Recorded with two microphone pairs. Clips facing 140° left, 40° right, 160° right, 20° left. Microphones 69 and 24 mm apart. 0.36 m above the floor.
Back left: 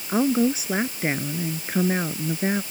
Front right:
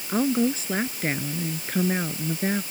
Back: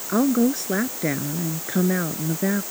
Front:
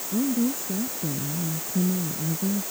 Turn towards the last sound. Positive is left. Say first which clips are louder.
# back left 2 dB, back 5 dB
turn(degrees=-140)